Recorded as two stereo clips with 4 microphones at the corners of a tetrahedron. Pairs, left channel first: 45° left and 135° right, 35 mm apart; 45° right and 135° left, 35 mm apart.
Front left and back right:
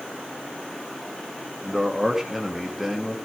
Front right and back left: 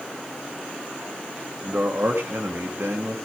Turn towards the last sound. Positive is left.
turn(degrees=145)